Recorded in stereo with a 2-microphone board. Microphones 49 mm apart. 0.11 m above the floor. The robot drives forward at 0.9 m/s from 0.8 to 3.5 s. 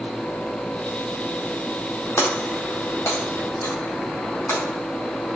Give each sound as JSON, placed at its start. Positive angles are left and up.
{"t": 2.2, "sound": "breaking glass", "side_deg": 65, "distance_m": 3.0}